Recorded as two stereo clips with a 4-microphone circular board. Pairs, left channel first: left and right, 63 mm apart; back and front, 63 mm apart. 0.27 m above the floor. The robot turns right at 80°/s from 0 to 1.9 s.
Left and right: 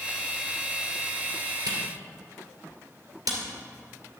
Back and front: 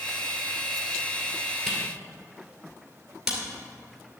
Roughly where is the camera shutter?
Right.